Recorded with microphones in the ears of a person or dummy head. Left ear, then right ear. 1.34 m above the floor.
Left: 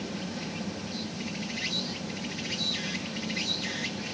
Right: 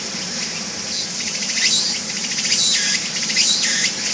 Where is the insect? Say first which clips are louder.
Right 12 dB; 50° right (ahead or behind).